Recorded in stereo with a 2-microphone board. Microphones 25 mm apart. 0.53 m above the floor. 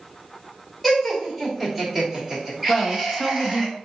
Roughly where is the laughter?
Centre.